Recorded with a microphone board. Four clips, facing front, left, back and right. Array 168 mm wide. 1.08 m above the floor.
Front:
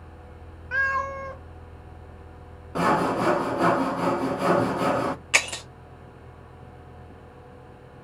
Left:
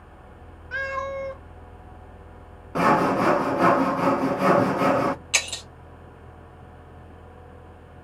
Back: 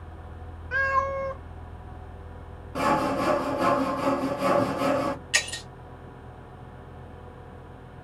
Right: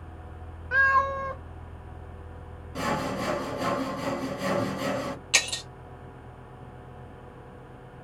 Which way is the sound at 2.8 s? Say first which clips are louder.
Left 10 dB, front 2 dB; 65° left.